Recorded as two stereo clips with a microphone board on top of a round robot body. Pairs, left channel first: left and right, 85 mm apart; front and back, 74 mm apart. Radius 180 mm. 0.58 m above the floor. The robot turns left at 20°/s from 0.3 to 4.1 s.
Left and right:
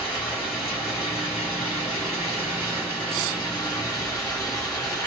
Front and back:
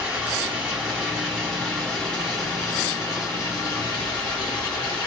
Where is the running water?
110° left, 1.0 m; by 5.1 s 35° left, 1.0 m.